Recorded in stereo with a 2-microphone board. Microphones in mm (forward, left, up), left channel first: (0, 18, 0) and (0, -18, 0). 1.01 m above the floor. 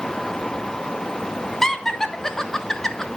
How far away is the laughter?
About 0.9 m.